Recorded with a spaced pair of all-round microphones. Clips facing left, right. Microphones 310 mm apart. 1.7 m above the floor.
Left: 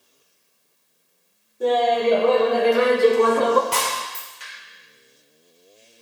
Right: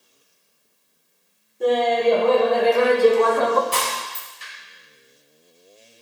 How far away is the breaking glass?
About 4 m.